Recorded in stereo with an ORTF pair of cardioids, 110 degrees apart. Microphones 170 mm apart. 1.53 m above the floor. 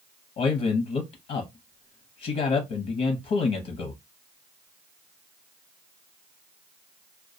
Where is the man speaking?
50° left, 0.7 m.